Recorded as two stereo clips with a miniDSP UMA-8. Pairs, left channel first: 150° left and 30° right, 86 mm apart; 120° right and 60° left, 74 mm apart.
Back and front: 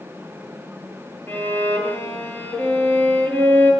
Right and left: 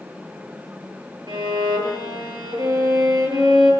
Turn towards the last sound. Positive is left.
turn(degrees=85)